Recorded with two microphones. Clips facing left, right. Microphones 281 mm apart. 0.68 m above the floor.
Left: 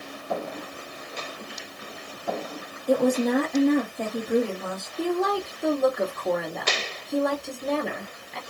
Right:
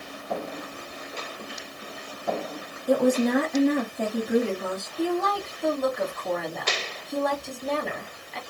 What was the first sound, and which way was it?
A woman speaking, 5° right (ahead or behind).